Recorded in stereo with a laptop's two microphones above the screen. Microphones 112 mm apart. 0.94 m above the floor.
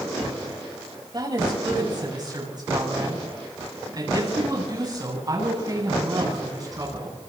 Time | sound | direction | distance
1.1 | a woman speaking | 40° right (ahead or behind) | 4.5 m